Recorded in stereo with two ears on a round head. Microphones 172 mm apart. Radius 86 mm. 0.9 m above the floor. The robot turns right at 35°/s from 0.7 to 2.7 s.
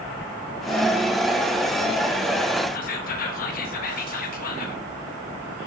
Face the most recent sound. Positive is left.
turn(degrees=45)  # may be behind; listen again after turning